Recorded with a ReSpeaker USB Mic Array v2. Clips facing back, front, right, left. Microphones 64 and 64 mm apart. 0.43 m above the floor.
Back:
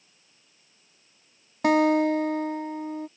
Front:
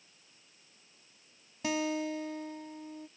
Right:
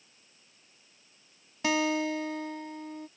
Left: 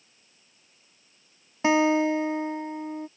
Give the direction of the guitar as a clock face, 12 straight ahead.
7 o'clock.